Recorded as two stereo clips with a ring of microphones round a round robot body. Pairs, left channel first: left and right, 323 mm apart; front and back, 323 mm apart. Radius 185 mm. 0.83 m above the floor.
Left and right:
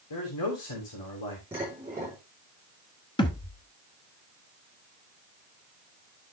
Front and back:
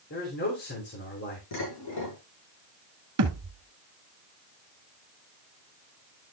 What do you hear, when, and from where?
0.1 s a man speaking: 60° left, 3 m
1.5 s dishes clattering: 5° right, 5.5 m
3.2 s a thud: 160° left, 1.0 m